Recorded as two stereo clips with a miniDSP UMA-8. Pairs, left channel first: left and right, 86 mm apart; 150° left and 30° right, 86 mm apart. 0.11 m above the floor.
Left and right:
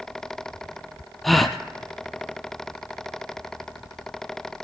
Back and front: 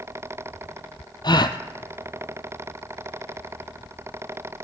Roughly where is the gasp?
Behind.